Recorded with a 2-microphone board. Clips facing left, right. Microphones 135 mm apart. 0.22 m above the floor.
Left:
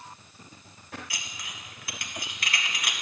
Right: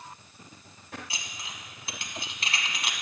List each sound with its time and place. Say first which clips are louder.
1.1 s dishes clattering: even; 30° right (ahead or behind), 1.1 m